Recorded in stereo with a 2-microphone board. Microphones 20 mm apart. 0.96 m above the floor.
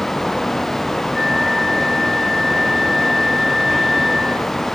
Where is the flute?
25° left (ahead or behind), 4 m.